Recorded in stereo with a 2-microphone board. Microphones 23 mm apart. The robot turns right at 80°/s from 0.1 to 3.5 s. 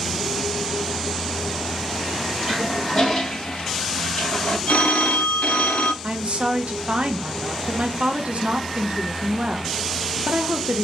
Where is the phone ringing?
75° left (ahead or behind), 0.5 m.